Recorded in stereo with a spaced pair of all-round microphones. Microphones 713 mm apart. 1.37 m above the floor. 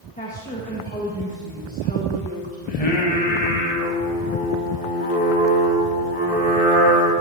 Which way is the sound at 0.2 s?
10° left (ahead or behind).